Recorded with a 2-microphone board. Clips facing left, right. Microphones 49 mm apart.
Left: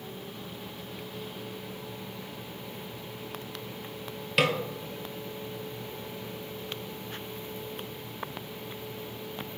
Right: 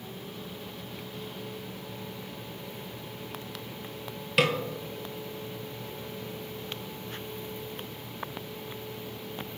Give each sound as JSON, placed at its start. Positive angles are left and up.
{"t": 4.4, "sound": "a snare drum", "side_deg": 0, "distance_m": 0.8}